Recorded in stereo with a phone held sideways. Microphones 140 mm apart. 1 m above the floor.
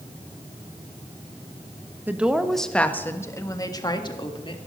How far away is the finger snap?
No finger snap in this recording.